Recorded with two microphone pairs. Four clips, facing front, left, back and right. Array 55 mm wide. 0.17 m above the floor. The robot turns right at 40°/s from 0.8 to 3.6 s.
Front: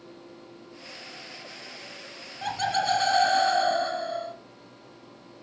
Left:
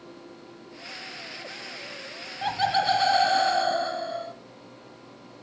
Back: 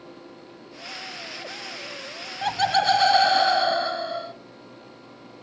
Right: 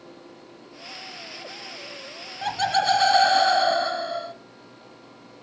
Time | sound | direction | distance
2.4 | laughter | 175° left | 1.3 m